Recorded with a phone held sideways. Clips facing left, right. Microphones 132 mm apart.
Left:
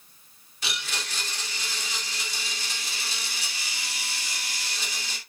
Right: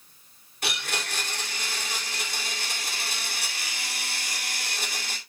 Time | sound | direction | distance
0.6 | a blender | 60° right (ahead or behind) | 2.5 m